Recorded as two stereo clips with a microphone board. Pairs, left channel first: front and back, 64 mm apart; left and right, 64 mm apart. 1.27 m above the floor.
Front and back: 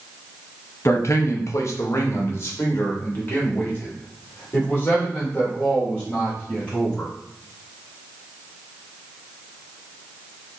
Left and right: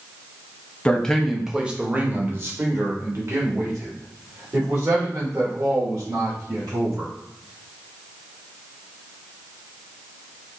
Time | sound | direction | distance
0.8 | a man speaking | 25° left | 0.8 m